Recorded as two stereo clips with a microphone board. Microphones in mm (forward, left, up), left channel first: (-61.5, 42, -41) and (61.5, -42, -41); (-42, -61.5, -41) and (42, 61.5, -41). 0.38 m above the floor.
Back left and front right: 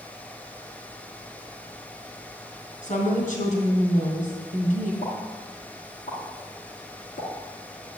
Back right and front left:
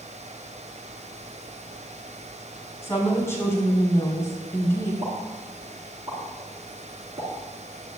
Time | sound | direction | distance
2.8 | a woman speaking | 165° left | 3.5 m
5.0 | a pop | 120° left | 4 m